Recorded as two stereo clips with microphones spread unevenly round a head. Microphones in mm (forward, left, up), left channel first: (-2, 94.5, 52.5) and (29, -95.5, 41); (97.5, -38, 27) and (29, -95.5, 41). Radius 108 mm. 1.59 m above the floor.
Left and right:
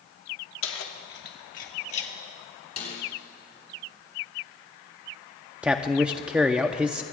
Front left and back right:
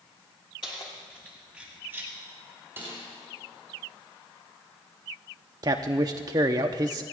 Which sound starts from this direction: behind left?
A snare drum, at 2.8 s.